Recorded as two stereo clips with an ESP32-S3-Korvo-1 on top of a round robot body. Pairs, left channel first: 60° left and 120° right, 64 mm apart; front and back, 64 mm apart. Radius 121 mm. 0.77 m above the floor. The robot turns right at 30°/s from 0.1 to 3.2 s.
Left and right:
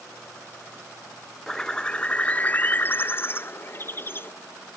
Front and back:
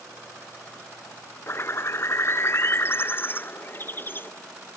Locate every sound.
1.5 s a bird: 20° right; by 4.3 s 30° left